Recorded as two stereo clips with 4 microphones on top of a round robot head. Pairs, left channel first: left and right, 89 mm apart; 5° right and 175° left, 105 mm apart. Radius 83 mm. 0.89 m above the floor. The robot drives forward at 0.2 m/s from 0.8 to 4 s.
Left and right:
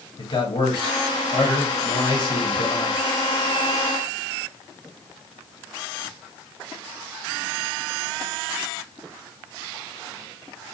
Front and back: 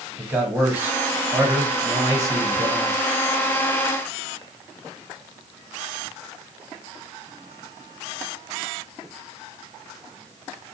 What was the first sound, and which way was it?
A man speaking, 100° left.